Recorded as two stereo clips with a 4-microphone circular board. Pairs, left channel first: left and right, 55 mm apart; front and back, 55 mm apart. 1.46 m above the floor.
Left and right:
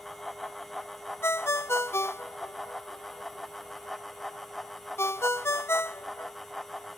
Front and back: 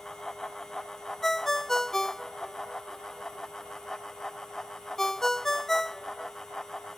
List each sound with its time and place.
1.2 s a ringtone: 80° left